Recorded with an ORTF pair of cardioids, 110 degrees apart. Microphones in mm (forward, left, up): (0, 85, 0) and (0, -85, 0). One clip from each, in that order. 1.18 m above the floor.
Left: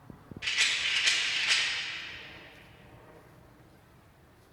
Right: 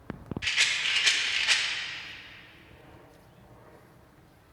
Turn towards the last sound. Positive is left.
turn(degrees=-20)